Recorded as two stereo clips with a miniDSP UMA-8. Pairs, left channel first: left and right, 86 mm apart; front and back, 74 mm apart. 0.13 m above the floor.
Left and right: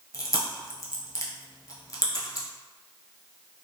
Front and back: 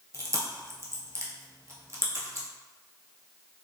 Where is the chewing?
140° left, 0.7 m.